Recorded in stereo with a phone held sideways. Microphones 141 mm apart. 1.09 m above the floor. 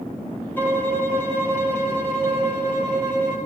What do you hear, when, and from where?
0.6 s a violin: 15° left (ahead or behind), 2.5 m